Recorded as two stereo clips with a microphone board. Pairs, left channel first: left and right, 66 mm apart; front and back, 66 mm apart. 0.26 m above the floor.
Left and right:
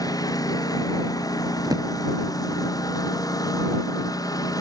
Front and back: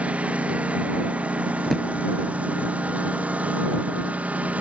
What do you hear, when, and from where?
0.0 s a lawn mower: 110° left
1.6 s a drawer: 85° right